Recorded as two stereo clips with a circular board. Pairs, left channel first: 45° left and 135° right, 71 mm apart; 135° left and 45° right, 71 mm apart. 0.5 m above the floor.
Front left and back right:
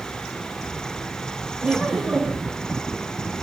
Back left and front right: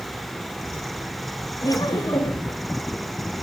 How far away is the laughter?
About 2 m.